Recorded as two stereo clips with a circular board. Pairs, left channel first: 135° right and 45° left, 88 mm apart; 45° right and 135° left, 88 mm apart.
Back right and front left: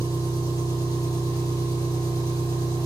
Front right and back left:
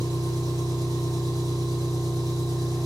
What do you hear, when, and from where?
0.0 s an engine running: straight behind, 3.5 m